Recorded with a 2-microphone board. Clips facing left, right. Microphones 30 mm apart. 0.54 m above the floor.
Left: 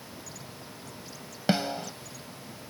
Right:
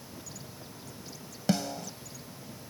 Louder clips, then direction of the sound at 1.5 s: Left 3 dB; 35° left (ahead or behind).